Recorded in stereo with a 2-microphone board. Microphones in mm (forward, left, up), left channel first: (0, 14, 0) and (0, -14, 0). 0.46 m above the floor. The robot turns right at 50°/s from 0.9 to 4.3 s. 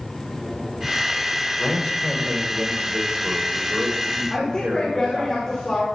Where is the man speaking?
140° left, 1.4 m; by 5.3 s 85° right, 1.4 m.